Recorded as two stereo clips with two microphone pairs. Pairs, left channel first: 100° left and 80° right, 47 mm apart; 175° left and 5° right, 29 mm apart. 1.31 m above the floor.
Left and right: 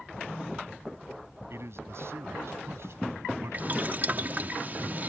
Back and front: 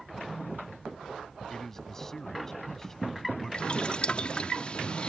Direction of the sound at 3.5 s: 130° right.